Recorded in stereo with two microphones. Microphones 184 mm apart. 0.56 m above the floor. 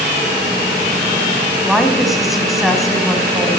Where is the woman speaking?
Centre (ahead or behind), 4.5 m.